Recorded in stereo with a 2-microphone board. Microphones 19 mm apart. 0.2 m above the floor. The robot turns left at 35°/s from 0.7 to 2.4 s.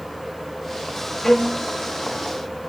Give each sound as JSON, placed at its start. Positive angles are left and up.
{"t": 1.2, "sound": "a violin", "side_deg": 25, "distance_m": 3.5}